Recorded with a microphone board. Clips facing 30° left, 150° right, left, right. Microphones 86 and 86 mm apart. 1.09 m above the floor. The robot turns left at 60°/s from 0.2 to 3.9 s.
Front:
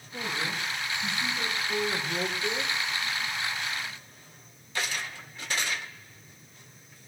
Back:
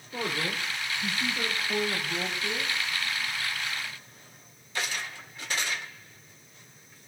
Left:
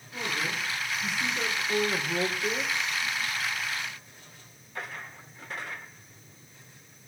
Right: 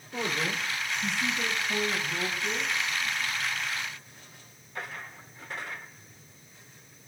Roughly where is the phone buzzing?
No phone buzzing in this recording.